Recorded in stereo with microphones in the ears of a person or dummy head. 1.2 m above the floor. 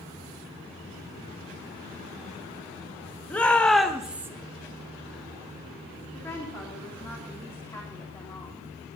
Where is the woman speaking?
10° left (ahead or behind), 3 m.